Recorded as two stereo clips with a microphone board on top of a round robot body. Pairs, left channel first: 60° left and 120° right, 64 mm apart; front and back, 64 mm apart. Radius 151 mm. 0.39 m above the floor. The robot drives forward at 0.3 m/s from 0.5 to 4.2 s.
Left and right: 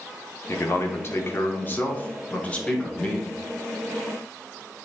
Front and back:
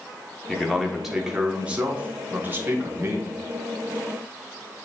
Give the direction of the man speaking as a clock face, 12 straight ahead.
9 o'clock.